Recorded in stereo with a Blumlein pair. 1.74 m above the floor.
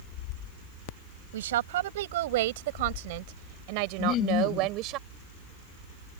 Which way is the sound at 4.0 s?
35° left.